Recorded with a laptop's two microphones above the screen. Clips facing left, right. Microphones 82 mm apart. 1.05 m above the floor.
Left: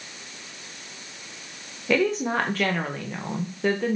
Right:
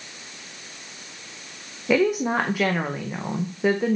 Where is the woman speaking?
10° right (ahead or behind), 0.6 m.